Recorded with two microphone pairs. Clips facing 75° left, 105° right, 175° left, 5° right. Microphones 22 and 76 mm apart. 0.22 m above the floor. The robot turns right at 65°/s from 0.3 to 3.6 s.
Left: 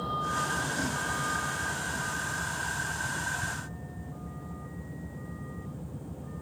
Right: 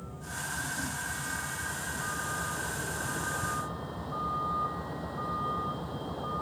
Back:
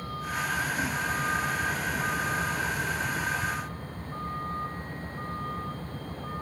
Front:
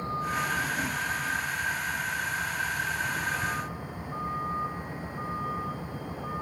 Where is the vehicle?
60° left; by 6.4 s 85° right.